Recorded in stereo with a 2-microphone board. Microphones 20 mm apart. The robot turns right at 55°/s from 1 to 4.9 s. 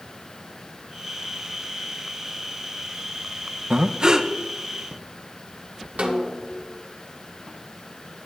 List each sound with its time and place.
3.7 s breathing: 60° right, 0.6 m; by 4.3 s 25° right, 0.6 m
6.0 s a snare drum: 75° right (ahead or behind), 1.4 m